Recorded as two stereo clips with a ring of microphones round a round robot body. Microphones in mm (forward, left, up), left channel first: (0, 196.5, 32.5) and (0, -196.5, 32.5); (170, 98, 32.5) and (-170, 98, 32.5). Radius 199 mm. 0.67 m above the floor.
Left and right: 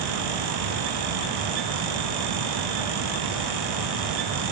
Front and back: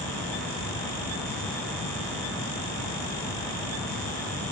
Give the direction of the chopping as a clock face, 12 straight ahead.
I don't hear chopping.